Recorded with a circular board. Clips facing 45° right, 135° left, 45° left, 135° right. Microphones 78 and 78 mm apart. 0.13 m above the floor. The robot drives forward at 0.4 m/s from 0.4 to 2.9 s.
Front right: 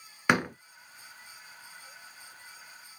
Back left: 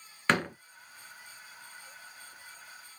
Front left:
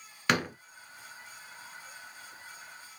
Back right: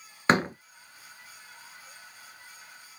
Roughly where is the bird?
No bird in this recording.